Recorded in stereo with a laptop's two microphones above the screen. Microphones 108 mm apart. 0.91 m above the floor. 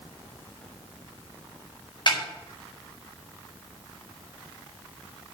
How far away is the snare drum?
About 6 m.